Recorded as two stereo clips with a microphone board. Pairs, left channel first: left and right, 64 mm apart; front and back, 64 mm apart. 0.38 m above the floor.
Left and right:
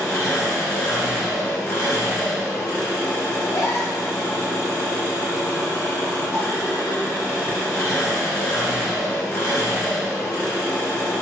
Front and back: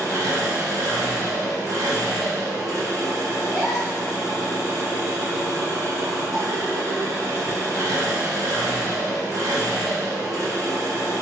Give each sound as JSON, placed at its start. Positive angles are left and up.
{"t": 0.0, "sound": "an engine running", "azimuth_deg": 145, "distance_m": 1.6}
{"t": 3.4, "sound": "a gasp", "azimuth_deg": 90, "distance_m": 1.6}